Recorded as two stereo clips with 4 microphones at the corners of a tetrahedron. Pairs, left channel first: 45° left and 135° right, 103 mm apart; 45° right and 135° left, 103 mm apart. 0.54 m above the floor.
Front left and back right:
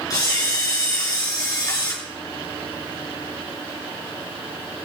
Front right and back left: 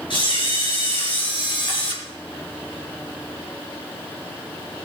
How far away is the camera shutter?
About 4.5 m.